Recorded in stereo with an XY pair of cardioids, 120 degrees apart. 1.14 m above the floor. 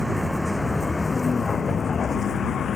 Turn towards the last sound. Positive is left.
turn(degrees=45)